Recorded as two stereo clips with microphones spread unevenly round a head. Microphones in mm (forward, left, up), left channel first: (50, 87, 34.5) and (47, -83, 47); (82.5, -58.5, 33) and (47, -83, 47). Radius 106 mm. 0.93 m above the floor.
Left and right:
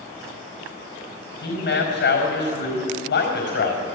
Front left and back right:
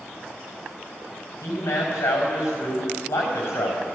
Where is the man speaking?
75° left, 4.5 m.